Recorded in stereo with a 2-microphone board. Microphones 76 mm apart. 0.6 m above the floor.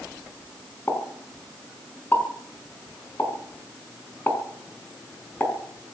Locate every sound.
0.9 s a pop: 30° left (ahead or behind), 4.5 m